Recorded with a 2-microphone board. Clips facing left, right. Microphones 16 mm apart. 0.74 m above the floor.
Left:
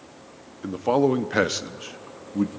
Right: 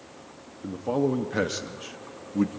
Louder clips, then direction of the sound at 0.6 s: Left 5 dB; 35° left (ahead or behind).